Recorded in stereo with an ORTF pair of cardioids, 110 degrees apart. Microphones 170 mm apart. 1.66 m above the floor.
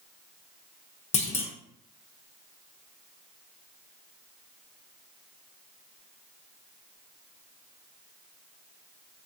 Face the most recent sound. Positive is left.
turn(degrees=40)